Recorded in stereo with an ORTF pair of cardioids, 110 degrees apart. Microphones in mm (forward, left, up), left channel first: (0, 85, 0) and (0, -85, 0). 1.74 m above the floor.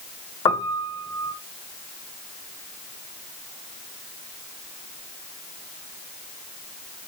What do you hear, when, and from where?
0.5 s a piano: 25° left, 0.8 m